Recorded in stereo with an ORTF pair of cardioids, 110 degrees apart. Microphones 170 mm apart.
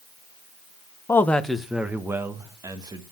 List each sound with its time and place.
1.1 s a man speaking: 15° left, 1.1 m; by 3.0 s 25° right, 2 m